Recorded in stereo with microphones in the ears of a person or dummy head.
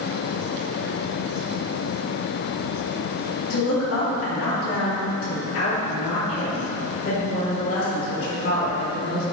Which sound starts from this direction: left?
A woman speaking, at 3.5 s.